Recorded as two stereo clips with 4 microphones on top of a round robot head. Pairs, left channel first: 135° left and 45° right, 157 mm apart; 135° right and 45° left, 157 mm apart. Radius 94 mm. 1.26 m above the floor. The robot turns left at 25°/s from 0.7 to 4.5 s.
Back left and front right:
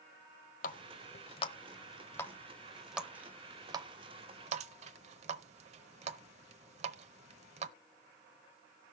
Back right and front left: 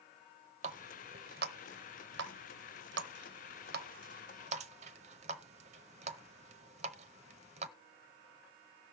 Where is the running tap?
95° left, 0.7 m; by 7.7 s straight ahead, 0.7 m.